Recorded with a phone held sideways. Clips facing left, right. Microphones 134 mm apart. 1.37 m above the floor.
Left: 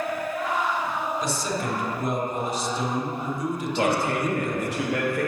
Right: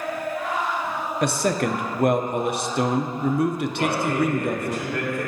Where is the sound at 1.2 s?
65° right (ahead or behind), 0.6 m.